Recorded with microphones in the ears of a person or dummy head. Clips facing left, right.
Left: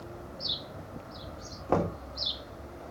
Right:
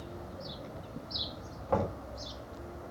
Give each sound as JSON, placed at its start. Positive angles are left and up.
{"t": 1.7, "sound": "knocking", "side_deg": 85, "distance_m": 2.5}